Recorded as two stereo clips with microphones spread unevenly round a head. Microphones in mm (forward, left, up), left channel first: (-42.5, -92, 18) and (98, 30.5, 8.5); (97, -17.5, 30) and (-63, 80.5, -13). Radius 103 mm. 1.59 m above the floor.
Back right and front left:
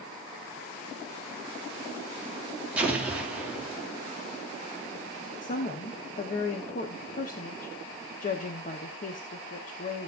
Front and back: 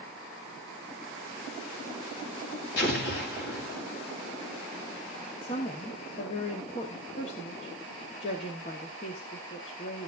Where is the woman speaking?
90° right, 1.0 m.